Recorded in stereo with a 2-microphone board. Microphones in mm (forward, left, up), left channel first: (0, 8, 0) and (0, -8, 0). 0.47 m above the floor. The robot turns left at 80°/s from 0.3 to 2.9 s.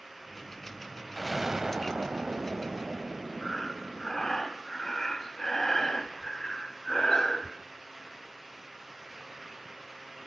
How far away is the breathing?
About 2 m.